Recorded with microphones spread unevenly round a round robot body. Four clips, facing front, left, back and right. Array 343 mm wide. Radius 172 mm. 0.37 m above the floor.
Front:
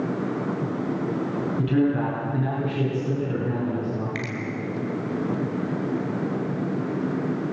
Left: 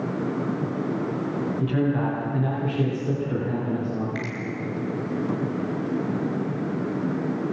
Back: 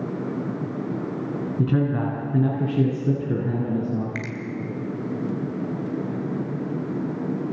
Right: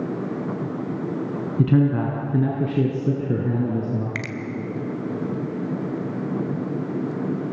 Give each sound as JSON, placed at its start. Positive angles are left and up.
{"t": 1.6, "sound": "a man speaking", "azimuth_deg": -110, "distance_m": 3.5}
{"t": 4.2, "sound": "a finger snap", "azimuth_deg": -110, "distance_m": 2.0}